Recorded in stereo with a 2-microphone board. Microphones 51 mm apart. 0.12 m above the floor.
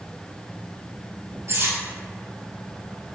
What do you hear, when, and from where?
1.5 s cutlery clinking: 50° right (ahead or behind), 1.4 m